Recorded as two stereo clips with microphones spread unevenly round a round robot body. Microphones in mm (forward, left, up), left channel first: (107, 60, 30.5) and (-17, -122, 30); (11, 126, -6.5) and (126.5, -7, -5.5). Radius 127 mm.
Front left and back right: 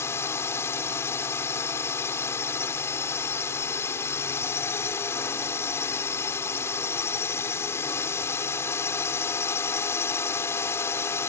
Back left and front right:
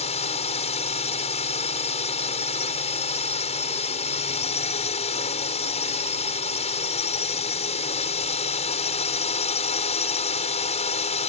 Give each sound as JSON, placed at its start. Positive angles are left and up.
{"t": 0.0, "sound": "a drone", "azimuth_deg": 130}